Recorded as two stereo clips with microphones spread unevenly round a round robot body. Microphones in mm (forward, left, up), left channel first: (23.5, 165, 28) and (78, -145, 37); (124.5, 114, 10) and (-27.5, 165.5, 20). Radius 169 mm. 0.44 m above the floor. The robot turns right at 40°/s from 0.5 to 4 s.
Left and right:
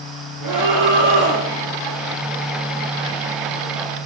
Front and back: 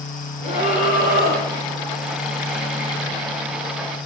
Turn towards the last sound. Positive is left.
turn(degrees=75)